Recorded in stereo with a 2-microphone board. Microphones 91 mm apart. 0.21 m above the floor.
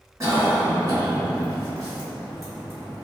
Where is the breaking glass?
I don't hear breaking glass.